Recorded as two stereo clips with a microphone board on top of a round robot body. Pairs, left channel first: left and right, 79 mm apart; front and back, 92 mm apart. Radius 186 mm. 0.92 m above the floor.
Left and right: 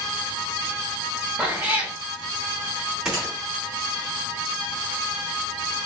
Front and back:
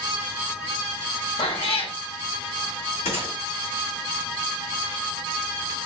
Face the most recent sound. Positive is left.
turn(degrees=-10)